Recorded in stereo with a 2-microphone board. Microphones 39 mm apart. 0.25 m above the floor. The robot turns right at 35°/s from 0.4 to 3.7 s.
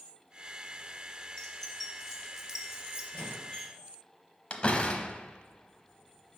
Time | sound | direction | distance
1.4 | keys jangling | 25° left (ahead or behind) | 1.4 m
3.1 | a squeak | 35° left (ahead or behind) | 2 m
4.5 | a door slam | 35° left (ahead or behind) | 0.8 m